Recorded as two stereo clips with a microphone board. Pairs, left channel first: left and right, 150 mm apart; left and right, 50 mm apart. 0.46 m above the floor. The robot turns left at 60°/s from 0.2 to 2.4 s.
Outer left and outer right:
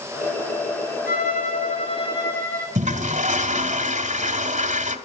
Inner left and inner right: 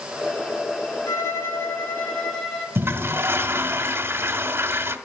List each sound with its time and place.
1.1 s a violin: 95° left, 5.5 m; by 2.6 s 15° left, 5.5 m
2.8 s a toilet flushing: 55° right (ahead or behind), 1.8 m